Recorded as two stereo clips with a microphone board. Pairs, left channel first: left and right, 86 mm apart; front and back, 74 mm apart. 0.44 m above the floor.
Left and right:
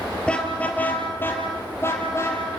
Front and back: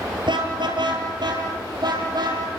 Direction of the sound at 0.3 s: 170° left.